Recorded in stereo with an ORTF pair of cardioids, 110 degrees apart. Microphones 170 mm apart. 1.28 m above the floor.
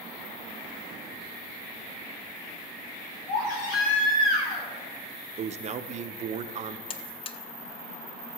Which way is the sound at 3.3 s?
50° left.